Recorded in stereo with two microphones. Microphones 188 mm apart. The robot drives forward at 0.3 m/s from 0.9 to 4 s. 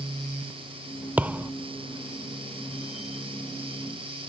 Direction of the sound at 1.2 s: 10° right (ahead or behind).